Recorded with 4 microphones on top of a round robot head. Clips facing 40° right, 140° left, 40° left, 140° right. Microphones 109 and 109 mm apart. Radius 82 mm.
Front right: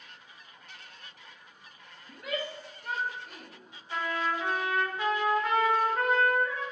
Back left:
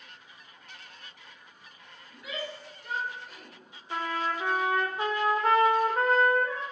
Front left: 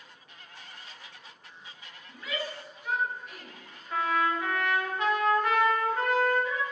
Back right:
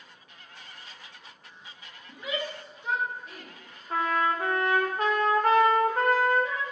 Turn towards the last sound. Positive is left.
turn(degrees=-175)